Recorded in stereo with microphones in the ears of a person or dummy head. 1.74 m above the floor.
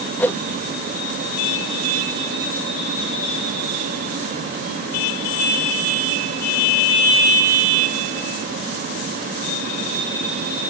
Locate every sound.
0.2 s a whoosh: 10° left (ahead or behind)